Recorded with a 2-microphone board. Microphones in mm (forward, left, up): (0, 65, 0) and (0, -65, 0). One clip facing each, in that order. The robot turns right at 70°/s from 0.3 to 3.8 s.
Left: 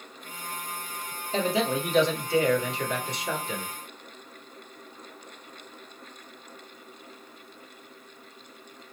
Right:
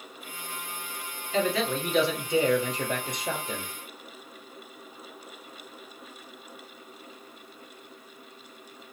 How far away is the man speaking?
About 1.7 m.